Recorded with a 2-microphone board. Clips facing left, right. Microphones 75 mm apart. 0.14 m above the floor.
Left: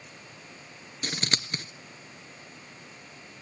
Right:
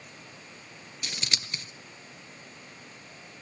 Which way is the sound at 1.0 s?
40° left (ahead or behind).